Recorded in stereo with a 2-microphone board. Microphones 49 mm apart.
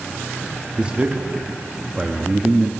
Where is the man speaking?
25° right (ahead or behind), 1.0 m.